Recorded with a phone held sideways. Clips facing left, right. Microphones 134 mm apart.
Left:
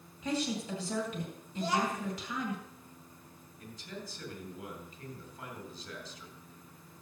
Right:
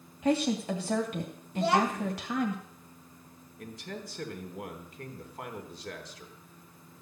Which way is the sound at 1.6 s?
65° right (ahead or behind).